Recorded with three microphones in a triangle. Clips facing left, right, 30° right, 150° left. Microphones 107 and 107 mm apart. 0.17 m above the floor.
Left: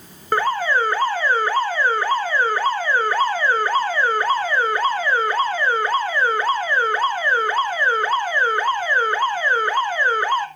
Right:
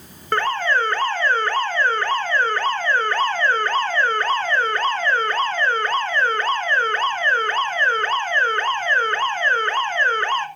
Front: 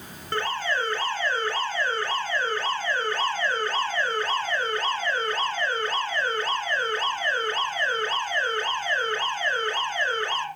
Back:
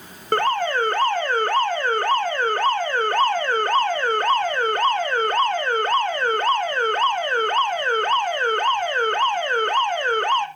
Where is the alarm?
165° left, 1.2 m.